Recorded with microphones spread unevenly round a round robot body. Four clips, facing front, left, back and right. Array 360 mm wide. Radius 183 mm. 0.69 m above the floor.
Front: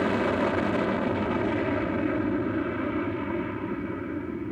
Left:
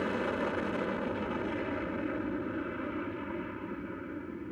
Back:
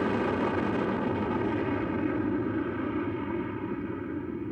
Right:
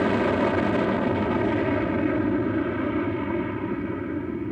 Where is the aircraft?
90° right.